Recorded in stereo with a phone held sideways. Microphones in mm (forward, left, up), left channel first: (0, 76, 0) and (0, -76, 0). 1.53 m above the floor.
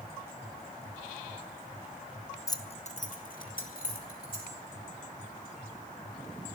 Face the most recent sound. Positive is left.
turn(degrees=80)